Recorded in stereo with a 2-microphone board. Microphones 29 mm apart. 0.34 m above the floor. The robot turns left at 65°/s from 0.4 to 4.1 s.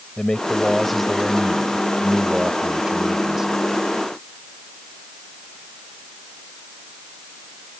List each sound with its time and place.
0.2 s a man speaking: 40° left; by 3.6 s 170° right